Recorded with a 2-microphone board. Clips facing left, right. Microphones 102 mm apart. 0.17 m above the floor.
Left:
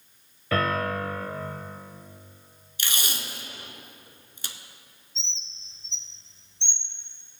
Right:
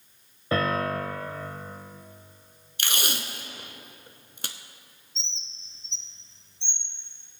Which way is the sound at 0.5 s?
25° right (ahead or behind).